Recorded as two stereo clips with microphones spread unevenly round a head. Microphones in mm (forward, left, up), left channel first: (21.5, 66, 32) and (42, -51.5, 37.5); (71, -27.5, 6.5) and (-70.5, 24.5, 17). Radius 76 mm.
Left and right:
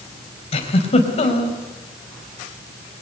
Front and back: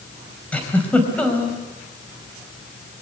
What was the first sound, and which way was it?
A giggle, 60° left.